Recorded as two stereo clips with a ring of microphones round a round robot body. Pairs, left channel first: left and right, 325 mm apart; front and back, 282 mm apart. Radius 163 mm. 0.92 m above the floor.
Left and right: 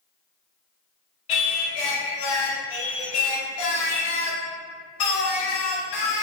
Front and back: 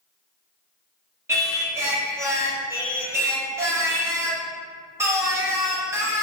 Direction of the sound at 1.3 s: 100° left.